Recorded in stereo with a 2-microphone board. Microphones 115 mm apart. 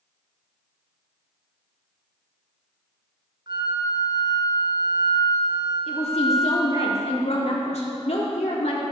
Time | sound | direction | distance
3.5 | a flute | 40° right (ahead or behind) | 1.1 m
5.9 | a woman speaking | 65° left (ahead or behind) | 1.6 m